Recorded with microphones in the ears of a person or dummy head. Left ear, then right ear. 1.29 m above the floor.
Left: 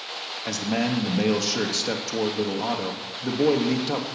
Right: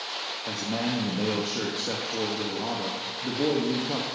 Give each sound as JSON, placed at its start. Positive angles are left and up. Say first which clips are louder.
{"t": 0.5, "sound": "a man speaking", "louder": "left 5 dB", "side_deg": 80, "distance_m": 1.6}